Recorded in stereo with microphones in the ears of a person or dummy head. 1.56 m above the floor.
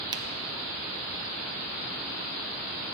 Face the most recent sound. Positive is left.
turn(degrees=-20)  # may be behind; listen again after turning